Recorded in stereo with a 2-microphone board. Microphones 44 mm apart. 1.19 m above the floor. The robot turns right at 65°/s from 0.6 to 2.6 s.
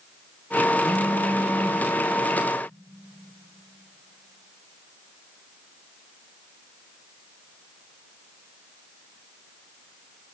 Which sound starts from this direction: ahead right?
A phone buzzing, at 0.8 s.